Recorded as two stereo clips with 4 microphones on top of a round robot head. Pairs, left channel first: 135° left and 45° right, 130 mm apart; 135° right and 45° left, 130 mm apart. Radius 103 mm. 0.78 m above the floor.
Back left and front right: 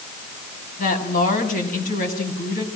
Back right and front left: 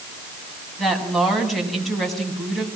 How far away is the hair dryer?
No hair dryer in this recording.